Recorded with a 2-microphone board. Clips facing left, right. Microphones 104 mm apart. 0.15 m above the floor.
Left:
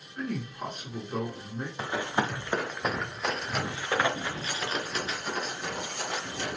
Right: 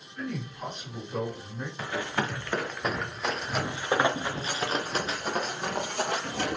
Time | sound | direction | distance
0.2 | a man speaking | 45° left (ahead or behind) | 2.5 m
1.8 | running footsteps | 25° left (ahead or behind) | 1.6 m